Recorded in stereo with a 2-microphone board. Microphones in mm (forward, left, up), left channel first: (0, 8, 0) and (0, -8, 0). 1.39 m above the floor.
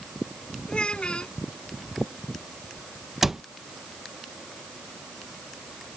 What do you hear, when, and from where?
0.7 s a child speaking: 75° left (ahead or behind)
3.2 s a cupboard door: 20° right (ahead or behind)